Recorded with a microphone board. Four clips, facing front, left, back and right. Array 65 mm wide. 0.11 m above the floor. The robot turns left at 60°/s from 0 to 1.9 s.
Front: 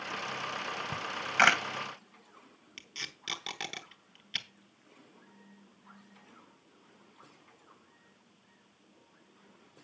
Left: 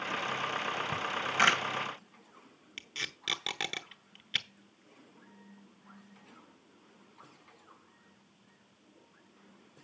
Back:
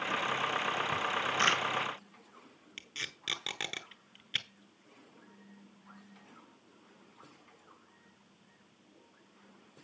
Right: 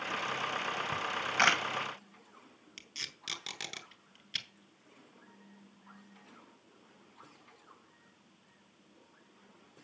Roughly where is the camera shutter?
Ahead.